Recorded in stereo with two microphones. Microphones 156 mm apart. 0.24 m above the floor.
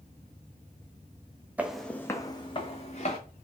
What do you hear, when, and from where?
1.6 s footsteps: 10° right (ahead or behind), 0.6 m; by 3.2 s 50° left (ahead or behind), 1.1 m